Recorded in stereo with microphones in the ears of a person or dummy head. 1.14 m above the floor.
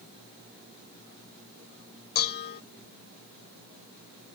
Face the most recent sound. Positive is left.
turn(degrees=50)  # may be behind; listen again after turning